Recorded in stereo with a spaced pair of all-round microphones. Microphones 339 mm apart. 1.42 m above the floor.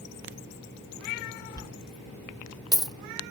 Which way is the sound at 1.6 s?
10° left (ahead or behind).